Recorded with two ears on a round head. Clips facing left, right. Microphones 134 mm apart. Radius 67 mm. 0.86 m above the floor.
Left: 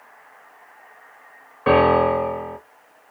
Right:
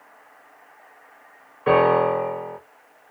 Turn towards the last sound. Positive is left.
turn(degrees=65)  # may be behind; listen again after turning